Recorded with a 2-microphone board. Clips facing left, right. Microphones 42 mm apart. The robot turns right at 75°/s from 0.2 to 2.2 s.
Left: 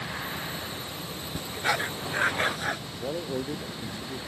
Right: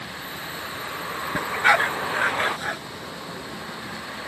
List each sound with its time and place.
0.0 s a vehicle: 170° left; by 4.3 s 40° right
1.4 s a dog barking: 75° right (ahead or behind); by 2.8 s 10° right (ahead or behind)
3.0 s a man speaking: 50° left (ahead or behind)